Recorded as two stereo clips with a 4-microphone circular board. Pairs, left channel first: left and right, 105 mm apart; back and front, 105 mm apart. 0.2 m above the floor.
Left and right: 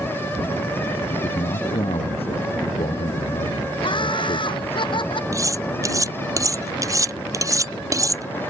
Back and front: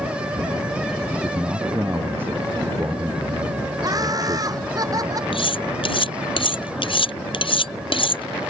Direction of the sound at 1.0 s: 70° left.